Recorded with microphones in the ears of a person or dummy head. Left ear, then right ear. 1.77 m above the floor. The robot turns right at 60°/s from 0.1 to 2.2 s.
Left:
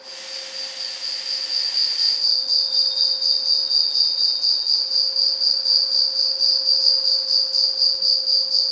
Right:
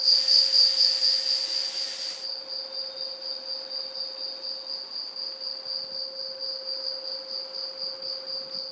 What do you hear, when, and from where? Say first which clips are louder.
0.0 s an insect: right 13 dB; 70° right; by 8.7 s 55° left